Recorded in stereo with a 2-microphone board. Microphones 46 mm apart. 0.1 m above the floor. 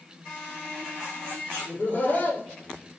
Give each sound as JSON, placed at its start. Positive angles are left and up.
{"t": 1.6, "sound": "laughter", "side_deg": 35, "distance_m": 3.5}